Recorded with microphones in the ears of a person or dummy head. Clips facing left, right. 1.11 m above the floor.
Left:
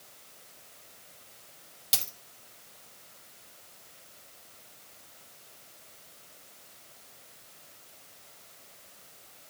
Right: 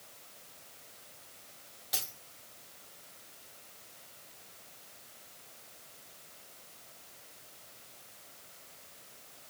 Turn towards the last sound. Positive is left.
turn(degrees=40)  # may be behind; listen again after turning